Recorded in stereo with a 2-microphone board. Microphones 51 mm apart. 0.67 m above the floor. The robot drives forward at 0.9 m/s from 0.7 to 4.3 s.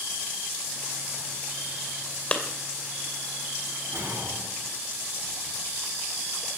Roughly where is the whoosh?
Right.